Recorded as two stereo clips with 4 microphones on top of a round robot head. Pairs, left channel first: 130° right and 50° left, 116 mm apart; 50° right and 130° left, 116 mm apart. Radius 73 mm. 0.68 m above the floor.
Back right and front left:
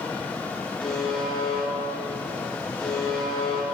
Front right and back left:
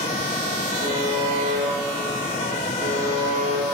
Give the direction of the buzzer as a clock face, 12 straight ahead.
7 o'clock.